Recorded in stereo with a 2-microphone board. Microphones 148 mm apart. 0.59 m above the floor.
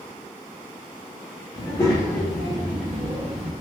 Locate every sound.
1.6 s a child speaking: 30° left (ahead or behind), 0.9 m; by 3.5 s 55° right (ahead or behind), 0.7 m